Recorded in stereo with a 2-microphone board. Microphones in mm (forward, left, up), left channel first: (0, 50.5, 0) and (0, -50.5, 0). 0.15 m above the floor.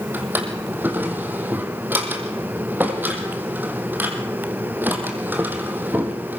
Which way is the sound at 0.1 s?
20° right (ahead or behind).